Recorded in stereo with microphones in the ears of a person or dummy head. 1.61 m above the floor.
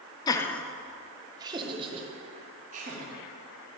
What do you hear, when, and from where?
0.3 s laughter: 20° left (ahead or behind), 0.6 m; by 3.1 s 40° right (ahead or behind), 1.8 m